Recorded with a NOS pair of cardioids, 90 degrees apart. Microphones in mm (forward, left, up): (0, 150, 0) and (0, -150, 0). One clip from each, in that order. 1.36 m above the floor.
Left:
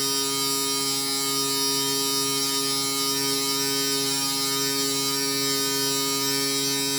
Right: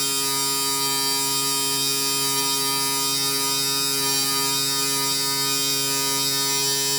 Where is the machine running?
50° right, 2.0 m.